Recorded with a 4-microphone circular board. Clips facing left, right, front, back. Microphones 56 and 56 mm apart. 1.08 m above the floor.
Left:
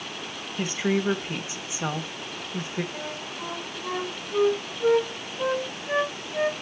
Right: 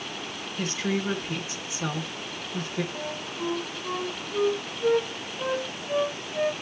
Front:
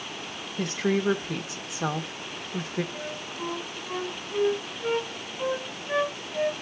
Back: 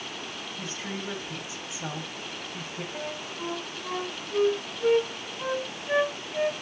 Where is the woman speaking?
15° left, 1.5 m.